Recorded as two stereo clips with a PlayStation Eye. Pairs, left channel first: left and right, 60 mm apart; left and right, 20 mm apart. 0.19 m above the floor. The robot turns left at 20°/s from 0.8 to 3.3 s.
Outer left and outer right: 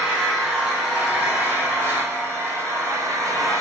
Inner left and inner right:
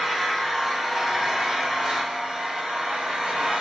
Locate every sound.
0.0 s an engine running: 10° right, 3 m; by 3.6 s 60° right, 3 m